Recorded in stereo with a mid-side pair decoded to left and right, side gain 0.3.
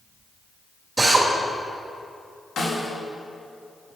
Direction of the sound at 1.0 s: 35° right.